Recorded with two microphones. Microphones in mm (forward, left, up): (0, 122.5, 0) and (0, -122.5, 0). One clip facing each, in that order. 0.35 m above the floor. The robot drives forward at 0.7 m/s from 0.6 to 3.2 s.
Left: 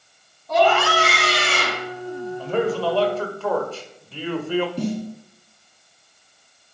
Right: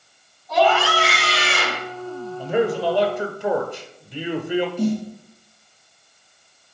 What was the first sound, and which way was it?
A scream, 60° left (ahead or behind).